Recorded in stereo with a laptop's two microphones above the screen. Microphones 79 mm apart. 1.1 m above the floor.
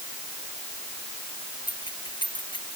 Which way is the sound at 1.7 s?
80° left.